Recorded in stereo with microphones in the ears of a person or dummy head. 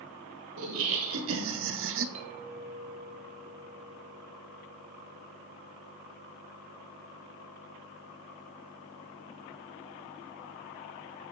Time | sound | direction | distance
0.6 | laughter | 70° right (ahead or behind) | 1.3 m
2.1 | a clink | 40° right (ahead or behind) | 1.5 m